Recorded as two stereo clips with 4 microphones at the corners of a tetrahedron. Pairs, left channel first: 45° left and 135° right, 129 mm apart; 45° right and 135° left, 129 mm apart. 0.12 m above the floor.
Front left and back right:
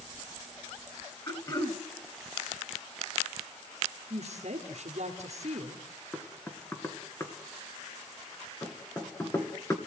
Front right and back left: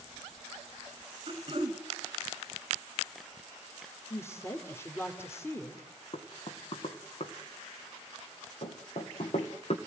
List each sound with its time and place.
1.3 s throat clearing: 95° left, 1.5 m
4.1 s a woman speaking: 115° right, 2.5 m
6.1 s knocking: 25° right, 2 m